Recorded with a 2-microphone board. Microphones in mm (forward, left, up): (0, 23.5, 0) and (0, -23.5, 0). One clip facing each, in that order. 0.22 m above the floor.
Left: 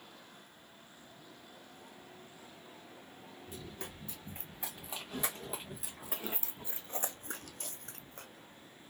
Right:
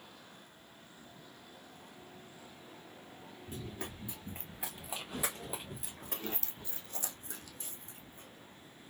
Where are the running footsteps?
20° right (ahead or behind), 2 m; by 8.3 s 80° left, 0.8 m.